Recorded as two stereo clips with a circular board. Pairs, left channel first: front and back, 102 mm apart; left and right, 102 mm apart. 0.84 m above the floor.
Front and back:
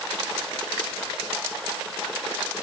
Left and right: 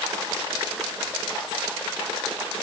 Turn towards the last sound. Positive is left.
No sound to turn to.